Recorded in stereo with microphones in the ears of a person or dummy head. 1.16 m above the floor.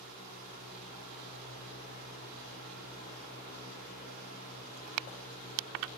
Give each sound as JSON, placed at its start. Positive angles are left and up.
{"t": 0.0, "sound": "a fan", "side_deg": -55, "distance_m": 6.0}